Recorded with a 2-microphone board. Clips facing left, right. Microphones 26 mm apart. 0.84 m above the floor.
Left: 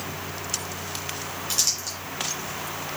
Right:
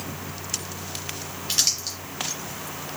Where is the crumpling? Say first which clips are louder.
Right 2 dB; 65° right (ahead or behind), 3 m.